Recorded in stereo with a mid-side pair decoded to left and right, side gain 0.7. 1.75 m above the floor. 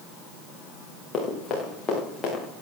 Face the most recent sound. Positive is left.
turn(degrees=30)